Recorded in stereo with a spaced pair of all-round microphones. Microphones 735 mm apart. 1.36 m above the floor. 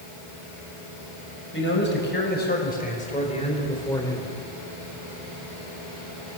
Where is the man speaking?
15° left (ahead or behind), 6.5 m; by 4.4 s 5° left (ahead or behind), 4 m.